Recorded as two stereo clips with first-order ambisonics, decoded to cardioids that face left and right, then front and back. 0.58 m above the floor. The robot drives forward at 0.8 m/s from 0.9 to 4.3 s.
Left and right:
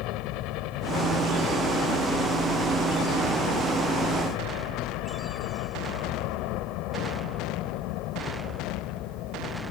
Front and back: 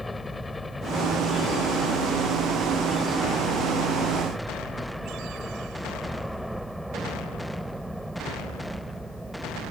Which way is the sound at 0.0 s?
80° left.